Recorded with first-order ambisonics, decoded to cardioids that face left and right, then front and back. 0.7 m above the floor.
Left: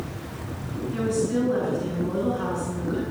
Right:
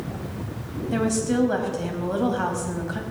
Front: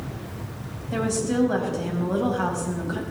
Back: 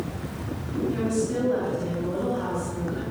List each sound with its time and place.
0.9 s a woman speaking: 60° right, 4.5 m